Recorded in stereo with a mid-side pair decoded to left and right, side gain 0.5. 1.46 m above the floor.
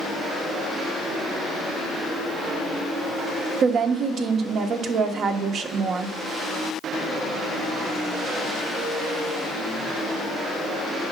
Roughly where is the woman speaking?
Ahead right.